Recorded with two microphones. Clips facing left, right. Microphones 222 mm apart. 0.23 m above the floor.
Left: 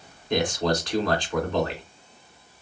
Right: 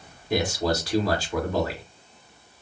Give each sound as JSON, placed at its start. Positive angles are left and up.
{"t": 0.3, "sound": "a man speaking", "side_deg": -5, "distance_m": 2.0}